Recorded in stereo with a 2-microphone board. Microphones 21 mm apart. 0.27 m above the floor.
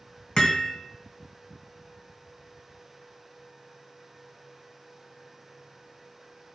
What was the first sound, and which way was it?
Hammering, 50° left (ahead or behind).